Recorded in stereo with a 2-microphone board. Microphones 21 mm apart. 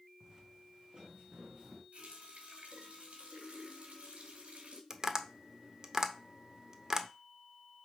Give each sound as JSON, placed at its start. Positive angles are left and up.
{"t": 0.2, "sound": "footsteps", "side_deg": -30, "distance_m": 1.7}
{"t": 1.9, "sound": "a running tap", "side_deg": -80, "distance_m": 2.0}
{"t": 4.9, "sound": "tapping", "side_deg": -30, "distance_m": 0.9}